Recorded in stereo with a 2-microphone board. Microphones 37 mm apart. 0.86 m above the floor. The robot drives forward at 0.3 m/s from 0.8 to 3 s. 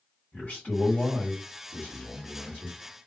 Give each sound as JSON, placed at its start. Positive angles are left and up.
{"t": 0.3, "sound": "a man speaking", "side_deg": 55, "distance_m": 1.4}